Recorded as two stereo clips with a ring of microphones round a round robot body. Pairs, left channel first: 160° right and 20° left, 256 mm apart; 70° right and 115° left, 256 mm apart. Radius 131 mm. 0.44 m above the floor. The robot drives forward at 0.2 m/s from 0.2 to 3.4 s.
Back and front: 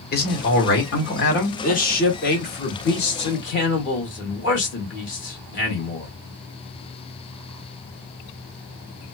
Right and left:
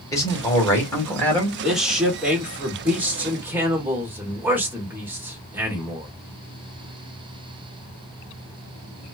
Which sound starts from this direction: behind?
A man speaking, at 1.6 s.